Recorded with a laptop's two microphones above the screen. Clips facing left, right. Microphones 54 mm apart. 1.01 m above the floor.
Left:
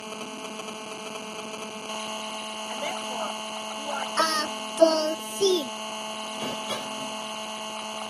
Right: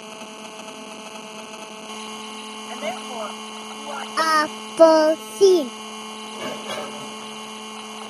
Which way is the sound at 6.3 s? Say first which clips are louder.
Right 4 dB; 50° right (ahead or behind).